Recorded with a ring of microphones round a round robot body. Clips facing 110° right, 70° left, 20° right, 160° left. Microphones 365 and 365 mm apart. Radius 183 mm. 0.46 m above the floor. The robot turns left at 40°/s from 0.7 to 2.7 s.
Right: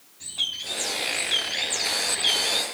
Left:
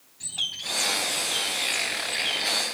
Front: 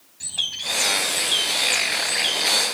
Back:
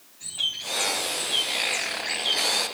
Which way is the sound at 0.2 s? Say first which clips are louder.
Even, front 2 dB; 5° right.